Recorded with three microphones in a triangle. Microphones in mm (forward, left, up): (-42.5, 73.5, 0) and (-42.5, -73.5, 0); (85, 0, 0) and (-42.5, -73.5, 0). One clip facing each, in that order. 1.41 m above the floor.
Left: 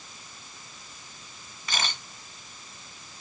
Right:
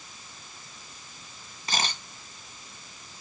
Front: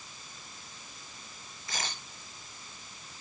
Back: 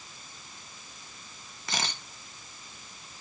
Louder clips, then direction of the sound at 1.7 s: Right 2 dB, back 4 dB; 145° right.